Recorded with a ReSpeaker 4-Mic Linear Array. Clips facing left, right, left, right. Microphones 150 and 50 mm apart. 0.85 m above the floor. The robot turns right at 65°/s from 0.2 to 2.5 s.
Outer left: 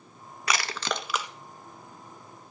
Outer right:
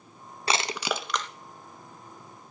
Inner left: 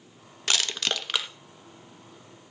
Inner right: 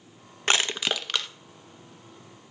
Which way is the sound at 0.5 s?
30° right (ahead or behind).